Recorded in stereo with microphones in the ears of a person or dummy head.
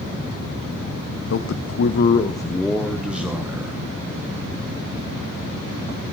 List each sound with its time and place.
1.3 s a man speaking: 85° left, 1.0 m; by 3.7 s 15° right (ahead or behind), 2 m